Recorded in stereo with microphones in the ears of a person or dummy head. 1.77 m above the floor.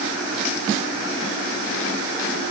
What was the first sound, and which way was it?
Only background noise.